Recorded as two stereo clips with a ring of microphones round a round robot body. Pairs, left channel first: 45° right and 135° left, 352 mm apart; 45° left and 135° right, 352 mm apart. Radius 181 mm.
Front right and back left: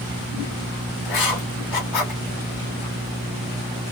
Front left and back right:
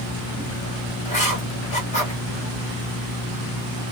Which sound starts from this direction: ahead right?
Writing, at 1.1 s.